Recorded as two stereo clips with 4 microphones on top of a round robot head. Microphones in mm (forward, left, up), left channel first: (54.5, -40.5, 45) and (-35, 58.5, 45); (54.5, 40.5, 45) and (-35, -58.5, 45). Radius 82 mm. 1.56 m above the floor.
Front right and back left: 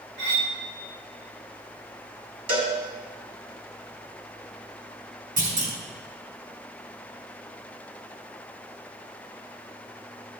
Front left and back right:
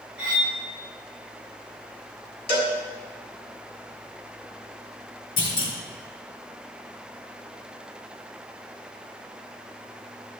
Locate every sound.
0.2 s cutlery clinking: 145° left, 1.7 m
2.5 s a cowbell: 90° left, 2.0 m
5.4 s a clunk: 105° left, 4 m